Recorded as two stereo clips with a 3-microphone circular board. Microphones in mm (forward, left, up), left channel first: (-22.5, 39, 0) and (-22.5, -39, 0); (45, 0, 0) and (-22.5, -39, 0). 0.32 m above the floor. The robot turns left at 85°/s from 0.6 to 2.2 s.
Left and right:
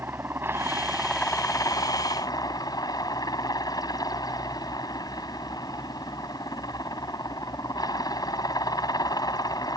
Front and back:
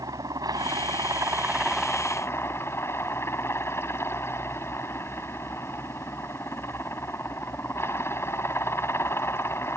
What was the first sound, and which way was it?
A helicopter, 145° right.